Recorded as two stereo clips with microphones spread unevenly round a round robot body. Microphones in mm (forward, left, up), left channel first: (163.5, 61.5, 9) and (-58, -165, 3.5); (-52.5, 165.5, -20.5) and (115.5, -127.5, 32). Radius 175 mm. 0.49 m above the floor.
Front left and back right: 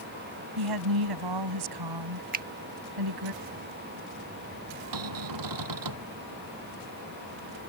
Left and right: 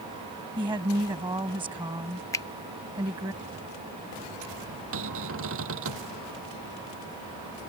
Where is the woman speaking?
140° right.